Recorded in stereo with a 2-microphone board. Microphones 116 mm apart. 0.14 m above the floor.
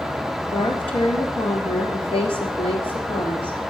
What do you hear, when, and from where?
0.5 s a woman speaking: 50° left (ahead or behind), 3 m